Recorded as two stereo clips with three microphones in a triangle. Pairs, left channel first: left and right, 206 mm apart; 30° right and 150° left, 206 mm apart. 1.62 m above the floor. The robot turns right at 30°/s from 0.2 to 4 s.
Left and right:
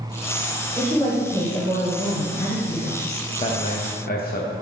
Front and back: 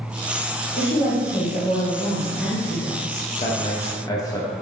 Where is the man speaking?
25° left, 0.5 m; by 4.5 s 40° left, 0.5 m.